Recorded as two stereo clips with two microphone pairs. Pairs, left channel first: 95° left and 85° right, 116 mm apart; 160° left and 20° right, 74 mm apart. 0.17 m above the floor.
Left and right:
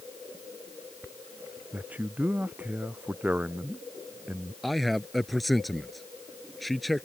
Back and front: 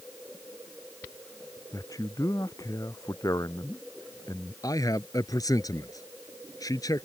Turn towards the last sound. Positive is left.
turn(degrees=-175)